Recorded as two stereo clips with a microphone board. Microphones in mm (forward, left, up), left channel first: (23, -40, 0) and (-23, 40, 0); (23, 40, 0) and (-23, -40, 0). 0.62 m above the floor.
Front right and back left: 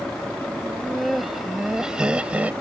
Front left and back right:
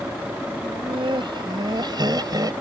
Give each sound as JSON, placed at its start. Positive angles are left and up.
{"t": 0.6, "sound": "laughter", "azimuth_deg": -150}